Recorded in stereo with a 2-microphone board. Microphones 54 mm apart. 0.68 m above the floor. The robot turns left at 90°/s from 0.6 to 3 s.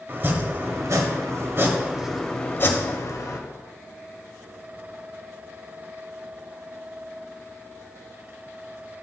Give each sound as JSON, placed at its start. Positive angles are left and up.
{"t": 0.1, "sound": "chopping", "azimuth_deg": -45, "distance_m": 1.2}